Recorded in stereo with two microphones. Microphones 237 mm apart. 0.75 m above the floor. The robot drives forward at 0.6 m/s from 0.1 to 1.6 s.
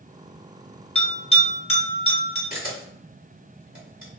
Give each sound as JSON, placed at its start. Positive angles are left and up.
{"t": 0.9, "sound": "a bell", "side_deg": 25, "distance_m": 1.2}
{"t": 2.5, "sound": "a camera shutter", "side_deg": 35, "distance_m": 1.5}